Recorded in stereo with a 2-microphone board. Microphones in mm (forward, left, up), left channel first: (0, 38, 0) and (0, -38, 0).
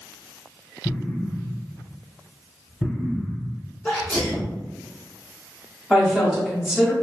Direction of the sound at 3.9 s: 10° left (ahead or behind).